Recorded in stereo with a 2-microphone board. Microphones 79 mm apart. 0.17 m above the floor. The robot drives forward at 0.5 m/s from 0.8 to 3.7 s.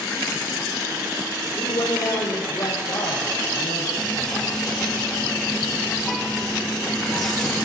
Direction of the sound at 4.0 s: Centre (ahead or behind).